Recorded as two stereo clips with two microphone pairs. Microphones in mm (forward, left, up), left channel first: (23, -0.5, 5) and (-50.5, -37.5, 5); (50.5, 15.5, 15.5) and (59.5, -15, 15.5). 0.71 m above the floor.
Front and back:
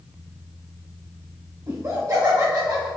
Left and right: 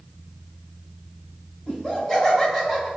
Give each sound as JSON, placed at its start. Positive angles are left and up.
{"t": 1.7, "sound": "laughter", "azimuth_deg": 175, "distance_m": 1.7}